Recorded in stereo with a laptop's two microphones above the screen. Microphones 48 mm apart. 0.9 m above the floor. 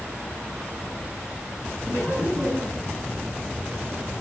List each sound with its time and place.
1.8 s laughter: 40° right (ahead or behind), 8.5 m; by 2.9 s 50° right (ahead or behind), 8.5 m